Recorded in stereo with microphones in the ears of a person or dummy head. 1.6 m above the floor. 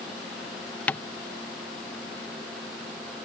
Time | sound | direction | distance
0.9 | tapping | 10° left (ahead or behind) | ?